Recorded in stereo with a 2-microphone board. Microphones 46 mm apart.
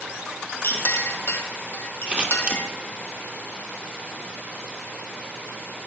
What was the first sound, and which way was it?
A clink, 60° left (ahead or behind).